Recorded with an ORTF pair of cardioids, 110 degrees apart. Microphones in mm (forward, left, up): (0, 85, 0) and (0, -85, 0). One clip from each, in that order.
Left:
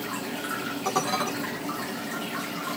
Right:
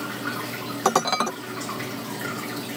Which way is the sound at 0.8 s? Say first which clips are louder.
Right 5 dB; 65° right.